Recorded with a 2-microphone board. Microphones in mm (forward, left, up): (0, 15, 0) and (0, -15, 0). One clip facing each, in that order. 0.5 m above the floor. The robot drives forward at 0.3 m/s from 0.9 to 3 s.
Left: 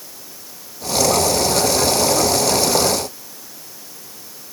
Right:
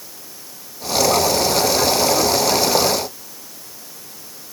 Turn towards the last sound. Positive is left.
No sound to turn to.